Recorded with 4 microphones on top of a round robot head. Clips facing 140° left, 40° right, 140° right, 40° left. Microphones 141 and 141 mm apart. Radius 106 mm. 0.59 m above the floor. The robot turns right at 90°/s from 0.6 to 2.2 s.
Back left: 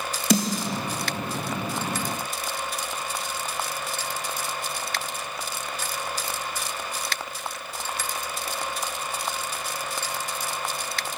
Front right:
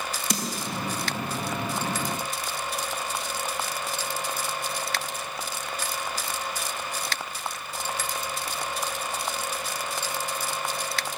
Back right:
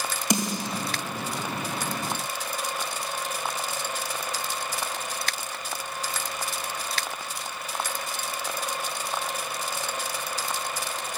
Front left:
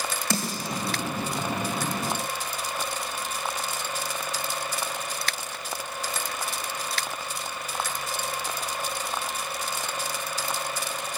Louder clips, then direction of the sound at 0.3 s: Back left 10 dB, back right 4 dB; 145° left.